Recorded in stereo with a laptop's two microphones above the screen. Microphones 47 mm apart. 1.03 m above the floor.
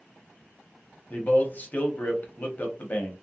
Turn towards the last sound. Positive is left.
turn(degrees=35)  # may be behind; listen again after turning